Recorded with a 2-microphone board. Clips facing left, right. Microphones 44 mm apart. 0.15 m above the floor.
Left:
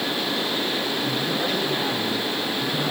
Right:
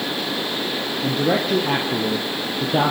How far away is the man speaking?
About 4 m.